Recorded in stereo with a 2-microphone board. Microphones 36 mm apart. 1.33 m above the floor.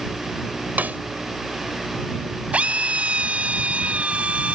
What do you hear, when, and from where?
0.8 s a snare drum: 45° right (ahead or behind)
2.5 s a drill: 30° right (ahead or behind)